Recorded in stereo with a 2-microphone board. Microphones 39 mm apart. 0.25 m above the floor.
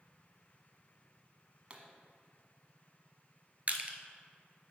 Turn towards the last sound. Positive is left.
turn(degrees=-40)  # may be behind; listen again after turning